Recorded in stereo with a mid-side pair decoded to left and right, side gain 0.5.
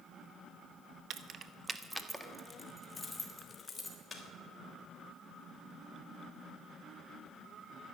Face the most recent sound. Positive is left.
turn(degrees=25)